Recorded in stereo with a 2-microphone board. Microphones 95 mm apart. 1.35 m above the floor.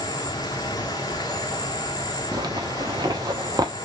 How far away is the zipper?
About 1.0 m.